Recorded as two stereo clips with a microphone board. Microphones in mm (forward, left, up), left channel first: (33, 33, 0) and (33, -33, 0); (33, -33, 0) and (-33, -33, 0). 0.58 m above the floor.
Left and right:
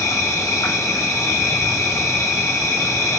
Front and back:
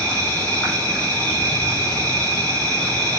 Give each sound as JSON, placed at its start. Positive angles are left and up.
{"t": 0.0, "sound": "an insect", "azimuth_deg": 70, "distance_m": 3.0}